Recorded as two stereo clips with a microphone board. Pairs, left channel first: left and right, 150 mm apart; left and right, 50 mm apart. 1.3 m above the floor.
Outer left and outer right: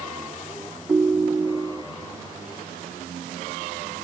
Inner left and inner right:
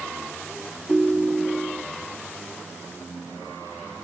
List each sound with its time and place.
0.9 s a ringtone: 10° right (ahead or behind), 0.6 m